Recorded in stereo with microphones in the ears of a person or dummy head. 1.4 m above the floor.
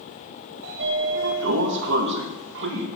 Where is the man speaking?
No man speaking in this recording.